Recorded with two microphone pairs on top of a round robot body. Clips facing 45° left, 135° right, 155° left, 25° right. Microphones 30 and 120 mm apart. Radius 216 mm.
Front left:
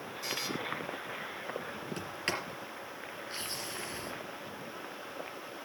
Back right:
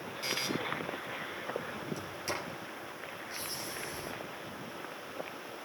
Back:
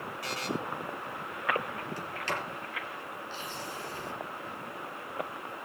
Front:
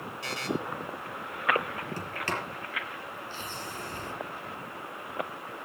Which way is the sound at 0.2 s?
90° right.